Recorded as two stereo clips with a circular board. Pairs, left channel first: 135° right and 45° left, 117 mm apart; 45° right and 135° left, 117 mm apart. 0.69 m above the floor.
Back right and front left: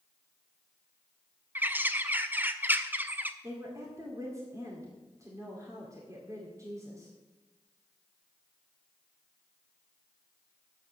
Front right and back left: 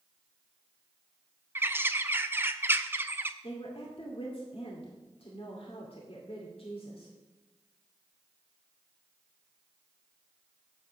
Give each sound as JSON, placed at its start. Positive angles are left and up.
{"t": 1.6, "sound": "a bird", "azimuth_deg": 95, "distance_m": 0.5}
{"t": 3.4, "sound": "a woman speaking", "azimuth_deg": -15, "distance_m": 2.0}